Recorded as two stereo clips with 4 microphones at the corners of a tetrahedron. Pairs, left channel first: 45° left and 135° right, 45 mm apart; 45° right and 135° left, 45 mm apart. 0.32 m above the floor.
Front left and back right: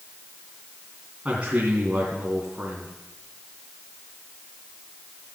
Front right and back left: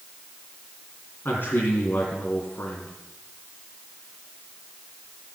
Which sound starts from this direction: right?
A man speaking, at 1.2 s.